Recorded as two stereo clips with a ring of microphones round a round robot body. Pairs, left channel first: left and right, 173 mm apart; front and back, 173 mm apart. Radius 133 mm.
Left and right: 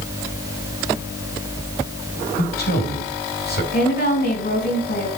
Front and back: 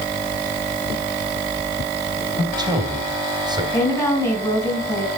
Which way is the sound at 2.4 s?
115° left.